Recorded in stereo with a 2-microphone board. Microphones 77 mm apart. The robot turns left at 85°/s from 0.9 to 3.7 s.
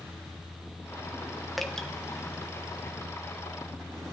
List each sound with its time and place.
1.6 s dripping: centre (ahead or behind), 0.9 m; by 1.9 s 15° left (ahead or behind), 0.9 m